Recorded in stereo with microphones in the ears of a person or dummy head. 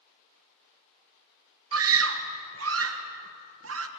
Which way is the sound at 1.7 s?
75° right (ahead or behind).